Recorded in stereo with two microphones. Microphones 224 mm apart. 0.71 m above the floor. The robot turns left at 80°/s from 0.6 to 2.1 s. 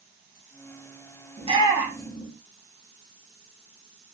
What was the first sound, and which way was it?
A shout, 30° right (ahead or behind).